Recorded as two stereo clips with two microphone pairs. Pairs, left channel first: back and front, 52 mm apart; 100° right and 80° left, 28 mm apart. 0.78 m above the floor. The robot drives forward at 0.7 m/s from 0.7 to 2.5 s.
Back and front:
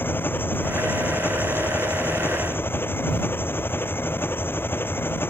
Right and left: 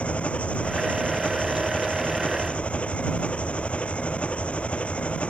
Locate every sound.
0.0 s an engine running: 130° right; by 5.3 s 135° right